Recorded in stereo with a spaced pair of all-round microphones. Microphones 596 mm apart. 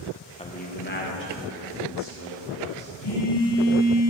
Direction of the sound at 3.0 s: 80° left.